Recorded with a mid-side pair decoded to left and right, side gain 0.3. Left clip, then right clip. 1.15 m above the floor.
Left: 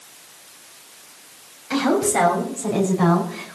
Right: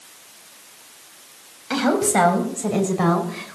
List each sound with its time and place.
1.7 s a woman speaking: 55° right, 7 m; by 3.6 s 40° right, 5 m